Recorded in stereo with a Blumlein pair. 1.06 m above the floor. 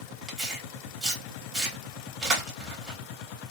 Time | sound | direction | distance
0.3 | tearing paper | 15° right | 1.1 m